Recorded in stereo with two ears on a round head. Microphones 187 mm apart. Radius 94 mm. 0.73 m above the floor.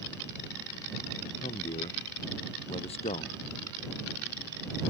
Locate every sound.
1.4 s a man speaking: 30° left (ahead or behind)